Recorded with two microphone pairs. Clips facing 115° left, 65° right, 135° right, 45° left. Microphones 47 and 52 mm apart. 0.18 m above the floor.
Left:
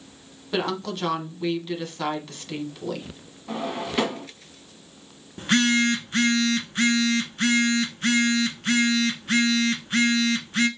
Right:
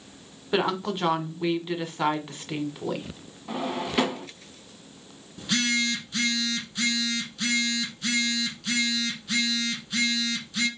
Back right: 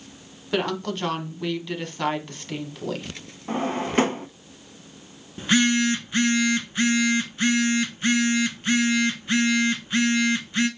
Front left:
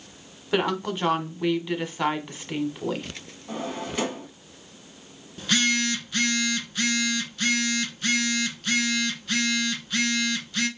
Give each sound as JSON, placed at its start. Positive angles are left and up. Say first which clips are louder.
{"t": 0.5, "sound": "a woman speaking", "louder": "right 1 dB, front left 1 dB", "azimuth_deg": -15, "distance_m": 1.1}
{"t": 3.5, "sound": "a drawer", "louder": "even, back right 6 dB", "azimuth_deg": -150, "distance_m": 0.5}
{"t": 5.4, "sound": "a phone buzzing", "louder": "left 5 dB, back right 4 dB", "azimuth_deg": 155, "distance_m": 0.8}